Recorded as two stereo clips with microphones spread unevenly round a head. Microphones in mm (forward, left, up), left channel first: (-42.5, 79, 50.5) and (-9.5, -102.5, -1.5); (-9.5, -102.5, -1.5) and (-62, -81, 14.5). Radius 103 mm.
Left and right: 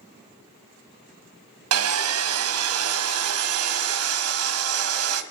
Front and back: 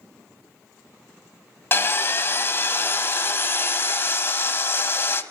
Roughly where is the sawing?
Right.